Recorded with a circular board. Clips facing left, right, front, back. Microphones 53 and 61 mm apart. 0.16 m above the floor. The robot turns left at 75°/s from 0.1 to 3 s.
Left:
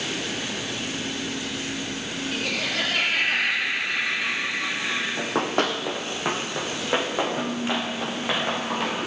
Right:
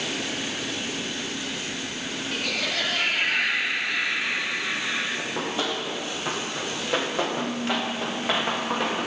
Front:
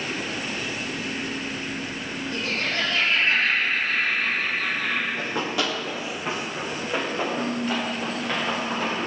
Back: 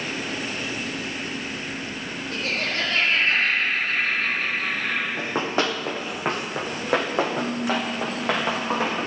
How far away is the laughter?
About 4.5 m.